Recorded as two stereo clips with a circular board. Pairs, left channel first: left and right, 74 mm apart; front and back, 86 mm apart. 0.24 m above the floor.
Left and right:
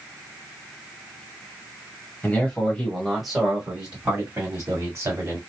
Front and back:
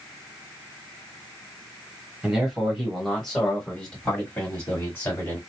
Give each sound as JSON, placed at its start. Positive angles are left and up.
{"t": 2.2, "sound": "a man speaking", "azimuth_deg": 105, "distance_m": 1.4}